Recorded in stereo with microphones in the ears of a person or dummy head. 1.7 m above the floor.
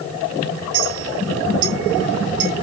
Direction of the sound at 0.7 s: 65° right (ahead or behind).